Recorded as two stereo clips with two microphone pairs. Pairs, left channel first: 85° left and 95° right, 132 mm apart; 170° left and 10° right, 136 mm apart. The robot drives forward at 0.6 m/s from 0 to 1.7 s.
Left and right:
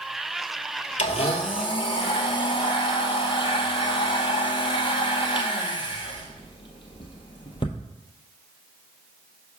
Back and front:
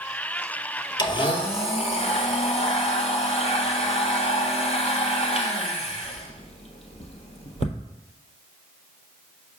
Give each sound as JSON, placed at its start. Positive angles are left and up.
{"t": 1.0, "sound": "a blender", "azimuth_deg": 110, "distance_m": 0.9}